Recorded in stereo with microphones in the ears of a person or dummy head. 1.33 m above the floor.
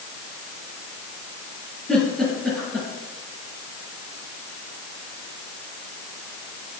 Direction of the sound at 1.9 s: 5° left (ahead or behind).